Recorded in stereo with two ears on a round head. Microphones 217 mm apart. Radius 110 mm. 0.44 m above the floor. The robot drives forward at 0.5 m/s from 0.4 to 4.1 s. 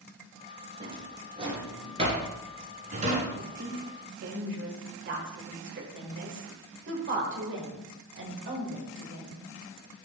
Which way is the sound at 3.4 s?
50° right (ahead or behind).